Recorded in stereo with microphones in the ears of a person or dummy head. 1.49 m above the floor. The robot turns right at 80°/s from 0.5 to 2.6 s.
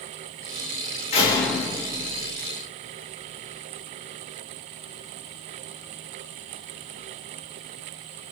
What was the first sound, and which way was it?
A door slam, 140° left.